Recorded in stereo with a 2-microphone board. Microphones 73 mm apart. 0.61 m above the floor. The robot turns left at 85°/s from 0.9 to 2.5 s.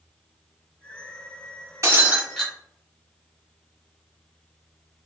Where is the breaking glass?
135° right, 1.4 m; by 2.5 s 165° left, 1.4 m.